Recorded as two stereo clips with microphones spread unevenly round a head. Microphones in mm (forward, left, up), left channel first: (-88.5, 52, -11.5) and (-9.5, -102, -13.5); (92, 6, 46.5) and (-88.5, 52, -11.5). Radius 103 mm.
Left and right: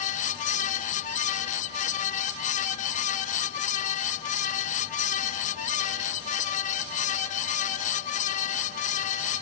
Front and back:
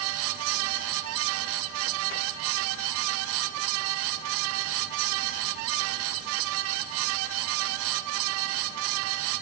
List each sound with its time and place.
Only background noise.